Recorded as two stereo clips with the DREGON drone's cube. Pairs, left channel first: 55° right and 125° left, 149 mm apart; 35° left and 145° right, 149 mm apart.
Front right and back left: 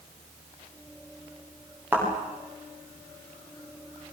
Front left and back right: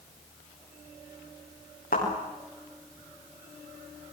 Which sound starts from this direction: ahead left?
A thud, at 1.9 s.